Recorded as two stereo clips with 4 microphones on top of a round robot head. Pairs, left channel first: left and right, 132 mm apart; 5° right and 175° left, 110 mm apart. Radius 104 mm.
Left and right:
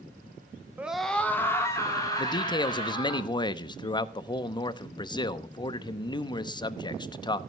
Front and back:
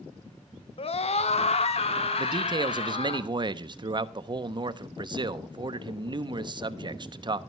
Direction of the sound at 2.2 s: 140° left.